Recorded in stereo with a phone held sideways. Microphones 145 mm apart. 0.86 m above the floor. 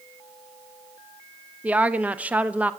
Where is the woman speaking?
10° right (ahead or behind), 0.5 m.